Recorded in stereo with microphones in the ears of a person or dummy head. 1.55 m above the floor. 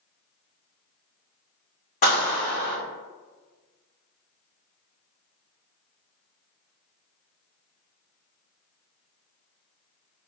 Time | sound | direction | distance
2.0 | a clap | 45° left (ahead or behind) | 1.9 m